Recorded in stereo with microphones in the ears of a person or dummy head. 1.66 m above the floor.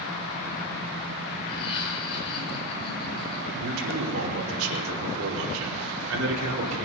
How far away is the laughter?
About 8 m.